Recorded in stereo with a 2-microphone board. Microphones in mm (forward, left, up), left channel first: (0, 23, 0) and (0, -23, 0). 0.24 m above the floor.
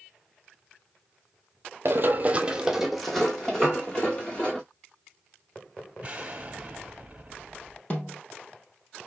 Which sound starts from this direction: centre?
A piano, at 3.6 s.